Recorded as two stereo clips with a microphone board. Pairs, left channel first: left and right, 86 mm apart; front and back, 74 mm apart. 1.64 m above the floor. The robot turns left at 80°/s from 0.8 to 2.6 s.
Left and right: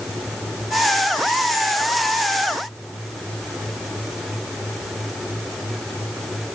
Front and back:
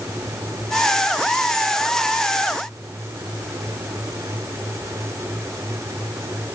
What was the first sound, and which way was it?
Only background noise.